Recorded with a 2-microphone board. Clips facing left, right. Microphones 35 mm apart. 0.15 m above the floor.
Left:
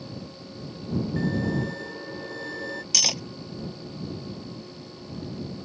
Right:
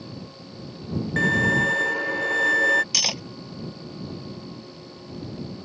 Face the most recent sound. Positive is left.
turn(degrees=-10)  # may be behind; listen again after turning